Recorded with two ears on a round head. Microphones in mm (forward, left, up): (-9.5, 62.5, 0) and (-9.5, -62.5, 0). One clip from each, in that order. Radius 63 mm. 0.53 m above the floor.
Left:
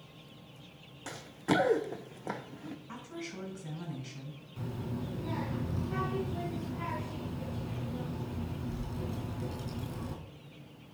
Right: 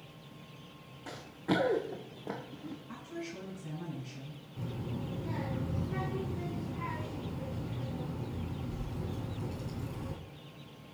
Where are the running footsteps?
65° left (ahead or behind), 1.5 m; by 2.8 s 45° left (ahead or behind), 1.7 m.